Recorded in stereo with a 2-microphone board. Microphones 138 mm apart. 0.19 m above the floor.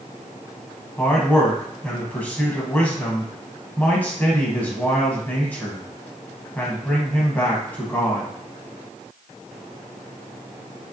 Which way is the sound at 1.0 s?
15° left (ahead or behind).